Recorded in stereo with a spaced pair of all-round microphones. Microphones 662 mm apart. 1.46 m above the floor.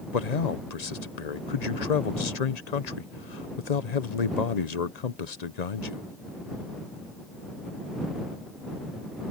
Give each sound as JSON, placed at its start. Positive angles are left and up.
{"t": 0.1, "sound": "a man speaking", "side_deg": 75}